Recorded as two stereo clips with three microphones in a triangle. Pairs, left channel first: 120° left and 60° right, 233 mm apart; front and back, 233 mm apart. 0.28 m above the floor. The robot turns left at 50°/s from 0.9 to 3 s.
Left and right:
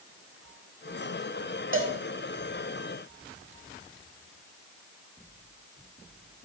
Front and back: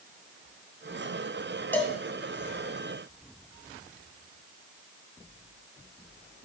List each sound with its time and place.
1.7 s a cowbell: 80° right, 0.9 m; by 1.9 s 90° right, 0.9 m